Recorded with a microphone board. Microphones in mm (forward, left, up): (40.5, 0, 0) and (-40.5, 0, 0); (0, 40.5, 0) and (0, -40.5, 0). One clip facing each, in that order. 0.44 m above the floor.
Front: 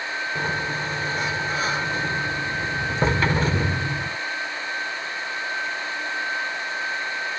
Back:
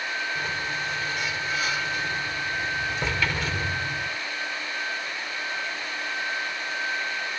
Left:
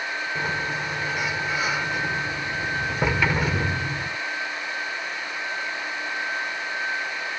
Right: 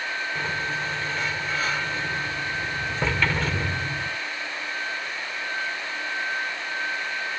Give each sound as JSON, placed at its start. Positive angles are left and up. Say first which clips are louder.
{"t": 0.3, "sound": "a sliding door", "louder": "front 4 dB, left 2 dB", "azimuth_deg": 20}